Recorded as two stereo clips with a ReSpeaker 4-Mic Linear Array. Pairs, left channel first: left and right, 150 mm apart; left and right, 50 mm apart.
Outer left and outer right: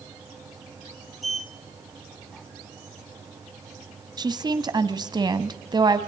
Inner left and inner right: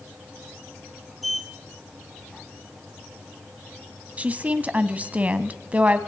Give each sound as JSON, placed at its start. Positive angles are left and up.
{"t": 1.2, "sound": "a sliding door", "side_deg": 0, "distance_m": 1.0}
{"t": 4.2, "sound": "a woman speaking", "side_deg": -30, "distance_m": 1.2}